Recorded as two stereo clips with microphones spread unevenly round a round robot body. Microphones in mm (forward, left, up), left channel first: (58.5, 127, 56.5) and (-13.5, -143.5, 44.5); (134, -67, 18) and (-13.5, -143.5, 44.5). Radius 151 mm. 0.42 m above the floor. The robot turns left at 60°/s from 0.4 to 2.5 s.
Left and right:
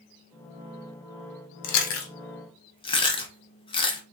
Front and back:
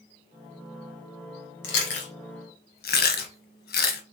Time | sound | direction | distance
1.6 | chewing | 55° left | 1.1 m